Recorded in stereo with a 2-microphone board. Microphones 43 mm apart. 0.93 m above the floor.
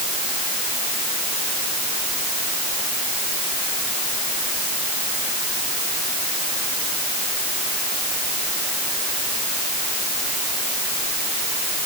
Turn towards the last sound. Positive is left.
No sound to turn to.